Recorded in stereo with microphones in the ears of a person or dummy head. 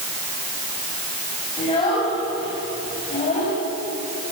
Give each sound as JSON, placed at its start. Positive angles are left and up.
{"t": 1.6, "sound": "a child speaking", "side_deg": 25, "distance_m": 6.0}